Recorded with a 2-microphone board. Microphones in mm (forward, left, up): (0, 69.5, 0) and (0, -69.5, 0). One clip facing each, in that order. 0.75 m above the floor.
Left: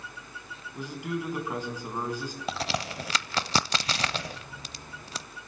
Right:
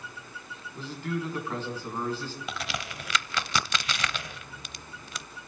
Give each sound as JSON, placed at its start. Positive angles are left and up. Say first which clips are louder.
{"t": 0.8, "sound": "a man speaking", "louder": "even", "side_deg": 15, "distance_m": 5.0}
{"t": 2.5, "sound": "a crack", "louder": "left 8 dB", "side_deg": 35, "distance_m": 0.6}